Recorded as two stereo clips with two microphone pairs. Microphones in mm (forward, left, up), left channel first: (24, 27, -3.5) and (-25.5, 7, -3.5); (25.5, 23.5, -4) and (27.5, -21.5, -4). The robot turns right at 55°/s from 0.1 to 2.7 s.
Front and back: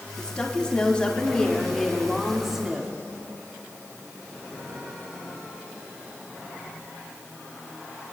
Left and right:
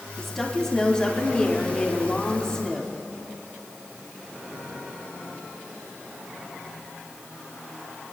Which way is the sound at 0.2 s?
5° left.